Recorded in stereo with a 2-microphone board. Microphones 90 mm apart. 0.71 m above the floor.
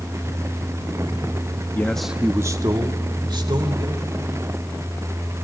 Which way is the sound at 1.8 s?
25° left (ahead or behind).